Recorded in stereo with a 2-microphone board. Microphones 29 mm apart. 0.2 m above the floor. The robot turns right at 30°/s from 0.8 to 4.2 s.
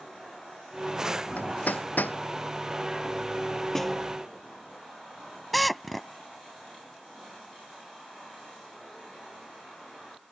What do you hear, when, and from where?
1.4 s hammering: 60° left (ahead or behind); by 2.2 s 85° left
3.8 s a snare drum: 10° left (ahead or behind); by 4.1 s centre (ahead or behind)
5.5 s a drill: 5° left (ahead or behind)